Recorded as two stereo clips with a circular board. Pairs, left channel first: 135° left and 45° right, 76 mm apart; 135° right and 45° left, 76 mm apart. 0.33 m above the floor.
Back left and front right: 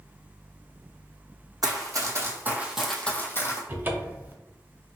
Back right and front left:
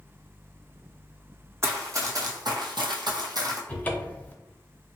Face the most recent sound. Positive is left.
turn(degrees=-85)